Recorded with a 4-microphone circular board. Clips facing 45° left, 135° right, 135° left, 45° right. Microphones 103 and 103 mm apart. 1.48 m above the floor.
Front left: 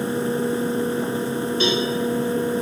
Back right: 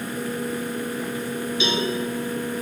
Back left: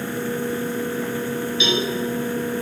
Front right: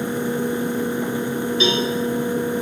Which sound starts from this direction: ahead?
A cowbell, at 1.6 s.